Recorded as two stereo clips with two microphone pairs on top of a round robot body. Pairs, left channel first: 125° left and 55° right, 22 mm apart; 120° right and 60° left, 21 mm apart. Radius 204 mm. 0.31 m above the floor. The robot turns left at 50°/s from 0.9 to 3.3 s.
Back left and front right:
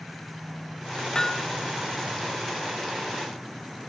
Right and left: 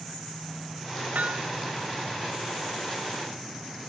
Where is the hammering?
70° left, 1.6 m; by 1.6 s 50° left, 1.6 m.